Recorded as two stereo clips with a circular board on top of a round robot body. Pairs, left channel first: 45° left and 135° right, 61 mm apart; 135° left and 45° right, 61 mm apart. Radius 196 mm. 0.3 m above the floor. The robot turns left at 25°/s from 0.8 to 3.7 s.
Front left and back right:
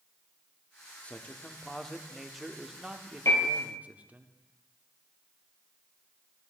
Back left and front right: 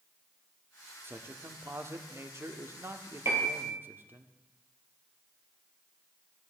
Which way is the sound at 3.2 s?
Straight ahead.